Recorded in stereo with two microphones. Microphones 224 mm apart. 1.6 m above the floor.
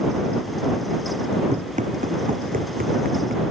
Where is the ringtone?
No ringtone in this recording.